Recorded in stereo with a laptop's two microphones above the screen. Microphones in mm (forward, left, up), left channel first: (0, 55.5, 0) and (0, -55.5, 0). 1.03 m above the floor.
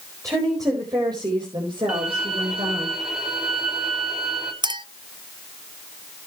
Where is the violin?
5° right (ahead or behind), 3 m.